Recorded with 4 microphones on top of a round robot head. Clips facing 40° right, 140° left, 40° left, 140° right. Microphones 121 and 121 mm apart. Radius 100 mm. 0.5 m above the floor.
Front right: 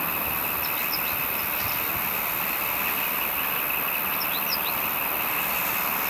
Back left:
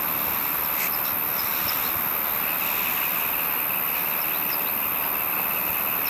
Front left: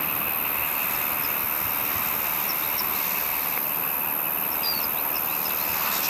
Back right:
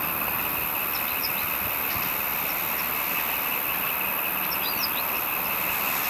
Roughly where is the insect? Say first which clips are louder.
Even, back right 1 dB; left.